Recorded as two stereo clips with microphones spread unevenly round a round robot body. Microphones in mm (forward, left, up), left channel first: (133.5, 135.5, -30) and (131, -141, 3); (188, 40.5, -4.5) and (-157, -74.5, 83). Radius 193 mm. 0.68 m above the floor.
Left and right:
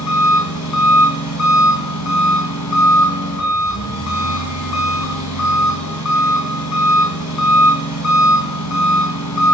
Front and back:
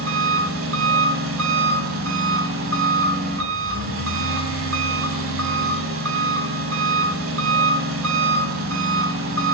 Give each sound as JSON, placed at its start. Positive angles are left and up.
{"t": 0.0, "sound": "an engine running", "azimuth_deg": 140, "distance_m": 3.5}